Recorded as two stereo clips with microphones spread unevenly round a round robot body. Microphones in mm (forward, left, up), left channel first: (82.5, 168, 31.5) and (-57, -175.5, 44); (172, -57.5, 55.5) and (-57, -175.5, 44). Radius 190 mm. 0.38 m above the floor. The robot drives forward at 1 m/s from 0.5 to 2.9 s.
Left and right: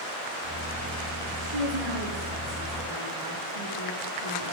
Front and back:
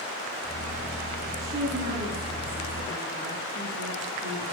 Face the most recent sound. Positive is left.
turn(degrees=-105)